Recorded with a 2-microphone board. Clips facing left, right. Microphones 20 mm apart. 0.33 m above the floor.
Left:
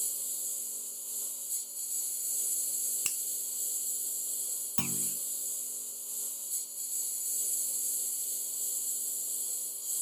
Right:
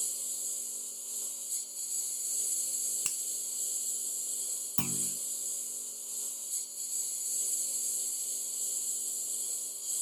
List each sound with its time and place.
0.0 s a lawn mower: 15° right (ahead or behind)
3.0 s a finger snap: 20° left (ahead or behind)
4.8 s a clunk: 15° left (ahead or behind)